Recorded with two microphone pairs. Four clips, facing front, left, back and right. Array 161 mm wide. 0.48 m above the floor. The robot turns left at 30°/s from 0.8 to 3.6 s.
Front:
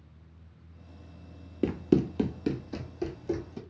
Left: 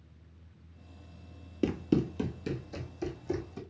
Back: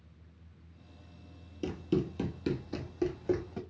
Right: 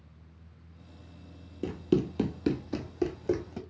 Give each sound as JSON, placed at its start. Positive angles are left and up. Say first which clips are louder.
{"t": 1.6, "sound": "running footsteps", "louder": "right 1 dB, front 7 dB", "azimuth_deg": 25, "distance_m": 0.6}